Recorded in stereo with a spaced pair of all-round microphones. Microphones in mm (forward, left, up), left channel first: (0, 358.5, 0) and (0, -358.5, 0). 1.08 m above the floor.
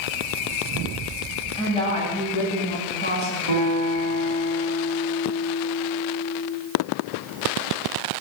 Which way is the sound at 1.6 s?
5° left (ahead or behind).